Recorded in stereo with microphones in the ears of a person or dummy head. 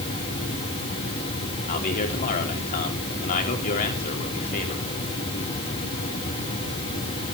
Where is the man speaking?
45° left (ahead or behind), 3.5 m.